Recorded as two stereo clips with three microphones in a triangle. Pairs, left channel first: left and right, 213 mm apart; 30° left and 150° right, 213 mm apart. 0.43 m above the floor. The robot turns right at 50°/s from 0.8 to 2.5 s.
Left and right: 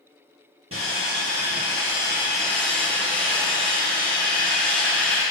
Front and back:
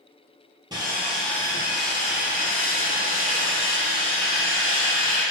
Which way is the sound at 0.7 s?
80° right.